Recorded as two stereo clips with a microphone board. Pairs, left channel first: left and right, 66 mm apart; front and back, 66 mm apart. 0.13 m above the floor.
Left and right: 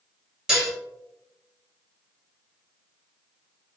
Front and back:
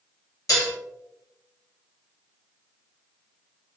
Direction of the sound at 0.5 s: 15° right.